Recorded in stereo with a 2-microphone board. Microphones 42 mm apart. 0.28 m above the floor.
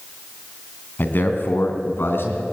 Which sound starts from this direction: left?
A man speaking, at 1.0 s.